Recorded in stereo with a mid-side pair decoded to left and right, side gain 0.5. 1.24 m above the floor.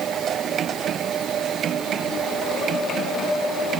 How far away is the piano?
No piano in this recording.